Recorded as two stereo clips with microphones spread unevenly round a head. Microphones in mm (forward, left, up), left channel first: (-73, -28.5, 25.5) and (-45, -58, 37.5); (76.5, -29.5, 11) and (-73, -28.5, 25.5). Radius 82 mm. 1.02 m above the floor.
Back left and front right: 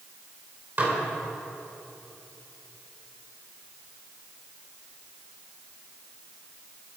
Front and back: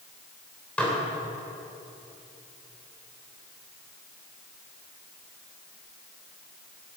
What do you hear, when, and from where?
0.8 s dishes clattering: 85° right, 2.5 m